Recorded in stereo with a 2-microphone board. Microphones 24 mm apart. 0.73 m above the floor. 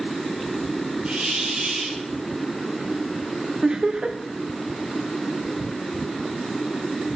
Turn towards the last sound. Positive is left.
turn(degrees=-30)  # may be behind; listen again after turning